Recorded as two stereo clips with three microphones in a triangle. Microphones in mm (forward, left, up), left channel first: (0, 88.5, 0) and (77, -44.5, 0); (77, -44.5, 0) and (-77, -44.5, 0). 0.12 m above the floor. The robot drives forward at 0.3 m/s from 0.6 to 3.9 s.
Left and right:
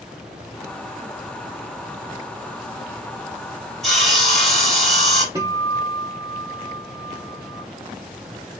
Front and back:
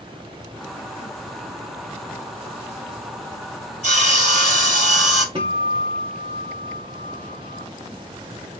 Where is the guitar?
125° right, 1.6 m.